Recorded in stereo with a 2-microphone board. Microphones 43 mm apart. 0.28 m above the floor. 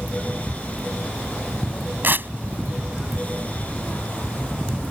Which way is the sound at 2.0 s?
55° right (ahead or behind).